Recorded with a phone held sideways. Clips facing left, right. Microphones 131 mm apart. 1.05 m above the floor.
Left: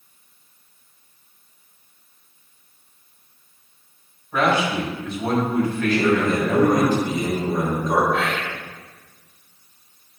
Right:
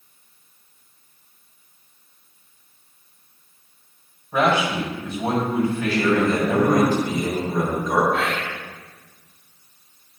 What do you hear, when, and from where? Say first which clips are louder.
4.3 s a man speaking: even; 15° right (ahead or behind), 4.5 m
5.9 s a man speaking: left 1 dB; 20° left (ahead or behind), 4 m
8.1 s whispering: even; centre (ahead or behind), 3 m